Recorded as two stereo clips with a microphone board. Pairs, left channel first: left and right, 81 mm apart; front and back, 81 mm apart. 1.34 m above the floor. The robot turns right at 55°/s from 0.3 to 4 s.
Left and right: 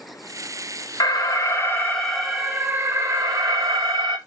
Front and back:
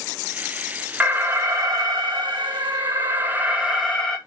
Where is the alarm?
110° left, 1.8 m; by 4.2 s 85° right, 1.8 m.